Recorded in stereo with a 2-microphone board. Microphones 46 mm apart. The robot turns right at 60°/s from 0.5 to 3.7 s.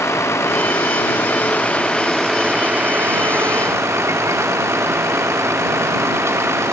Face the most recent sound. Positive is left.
turn(degrees=-90)